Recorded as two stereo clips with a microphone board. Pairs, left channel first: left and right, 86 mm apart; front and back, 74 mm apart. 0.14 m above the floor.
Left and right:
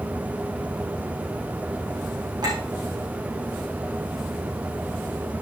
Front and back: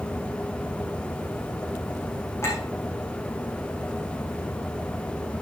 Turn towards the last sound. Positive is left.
turn(degrees=-55)